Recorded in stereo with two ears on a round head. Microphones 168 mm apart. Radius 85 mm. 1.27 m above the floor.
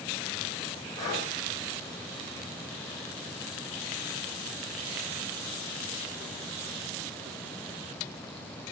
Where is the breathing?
15° left (ahead or behind), 4 m.